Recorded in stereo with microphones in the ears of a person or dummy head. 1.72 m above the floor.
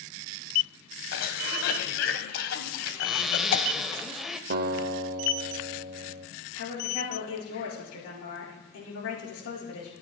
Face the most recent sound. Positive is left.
turn(degrees=85)